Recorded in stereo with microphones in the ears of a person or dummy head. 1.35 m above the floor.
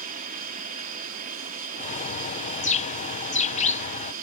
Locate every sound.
0.0 s an aircraft: 45° right (ahead or behind)
1.8 s a bird: 35° left (ahead or behind)